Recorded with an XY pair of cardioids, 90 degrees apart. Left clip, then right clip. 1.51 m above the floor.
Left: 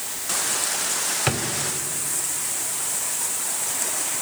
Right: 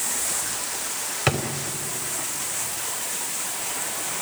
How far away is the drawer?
About 3 m.